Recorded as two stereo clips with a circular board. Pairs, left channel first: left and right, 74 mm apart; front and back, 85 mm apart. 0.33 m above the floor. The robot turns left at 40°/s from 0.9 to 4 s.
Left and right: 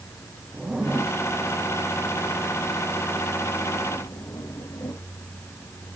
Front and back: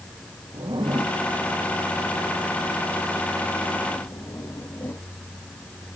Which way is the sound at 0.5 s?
170° right.